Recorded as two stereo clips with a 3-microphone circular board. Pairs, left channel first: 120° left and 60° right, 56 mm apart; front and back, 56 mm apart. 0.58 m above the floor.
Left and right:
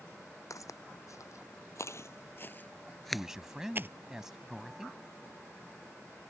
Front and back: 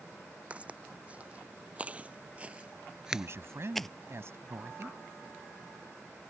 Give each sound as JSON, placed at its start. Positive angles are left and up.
{"t": 0.5, "sound": "footsteps", "azimuth_deg": 115}
{"t": 3.1, "sound": "a man speaking", "azimuth_deg": -145}